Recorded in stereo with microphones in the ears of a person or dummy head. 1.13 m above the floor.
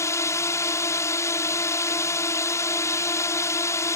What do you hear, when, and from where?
0.0 s a drone: 15° left (ahead or behind)